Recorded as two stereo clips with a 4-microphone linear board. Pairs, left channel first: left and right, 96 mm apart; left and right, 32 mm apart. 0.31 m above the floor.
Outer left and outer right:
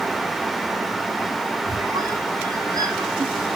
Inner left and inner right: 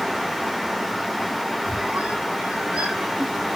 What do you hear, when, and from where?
1.7 s a squeak: 40° right (ahead or behind), 1.9 m